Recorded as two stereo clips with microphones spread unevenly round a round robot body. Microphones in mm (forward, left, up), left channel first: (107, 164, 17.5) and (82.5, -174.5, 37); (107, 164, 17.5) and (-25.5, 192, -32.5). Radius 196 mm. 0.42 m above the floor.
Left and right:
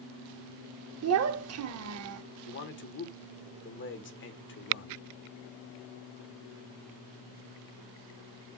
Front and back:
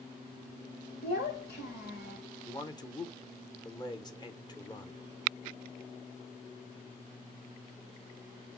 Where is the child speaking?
50° right, 0.7 m.